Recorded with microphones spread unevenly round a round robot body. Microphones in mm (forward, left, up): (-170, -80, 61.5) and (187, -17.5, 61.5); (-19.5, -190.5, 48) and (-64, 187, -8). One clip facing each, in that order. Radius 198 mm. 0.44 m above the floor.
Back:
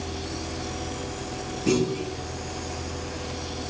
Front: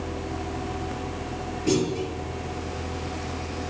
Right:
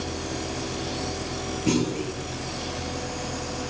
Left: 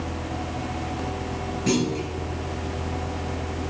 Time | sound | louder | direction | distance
1.7 | a clunk | even, left 1 dB | 150° left | 3.5 m